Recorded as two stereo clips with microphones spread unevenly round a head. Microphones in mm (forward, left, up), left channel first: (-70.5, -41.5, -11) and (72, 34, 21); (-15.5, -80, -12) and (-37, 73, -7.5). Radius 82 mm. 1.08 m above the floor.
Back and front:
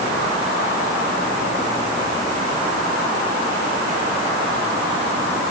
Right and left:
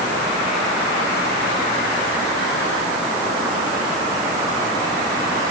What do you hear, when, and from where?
Only background noise.